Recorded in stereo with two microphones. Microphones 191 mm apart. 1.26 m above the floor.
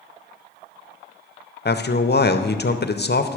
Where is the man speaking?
60° left (ahead or behind), 0.6 m.